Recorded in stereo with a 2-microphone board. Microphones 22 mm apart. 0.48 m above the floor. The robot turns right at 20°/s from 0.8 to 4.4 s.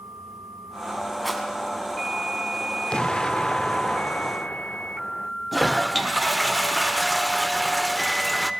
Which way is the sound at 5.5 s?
5° right (ahead or behind).